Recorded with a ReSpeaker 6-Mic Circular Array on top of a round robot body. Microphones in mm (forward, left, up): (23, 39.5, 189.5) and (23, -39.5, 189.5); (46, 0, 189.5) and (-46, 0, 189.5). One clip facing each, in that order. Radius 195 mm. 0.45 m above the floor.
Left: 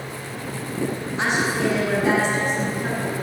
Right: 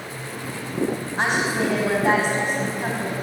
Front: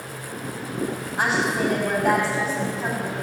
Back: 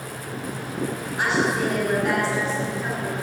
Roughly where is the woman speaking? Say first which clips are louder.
Even, even; ahead right.